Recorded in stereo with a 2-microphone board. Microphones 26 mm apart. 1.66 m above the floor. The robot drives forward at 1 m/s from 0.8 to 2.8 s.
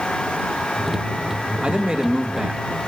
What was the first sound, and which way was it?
A man speaking, 35° right (ahead or behind).